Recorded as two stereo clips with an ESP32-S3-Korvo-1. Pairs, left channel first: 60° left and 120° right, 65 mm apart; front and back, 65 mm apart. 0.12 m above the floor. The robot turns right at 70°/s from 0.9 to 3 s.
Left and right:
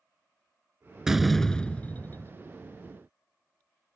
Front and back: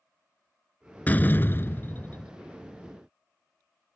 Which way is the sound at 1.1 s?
40° right.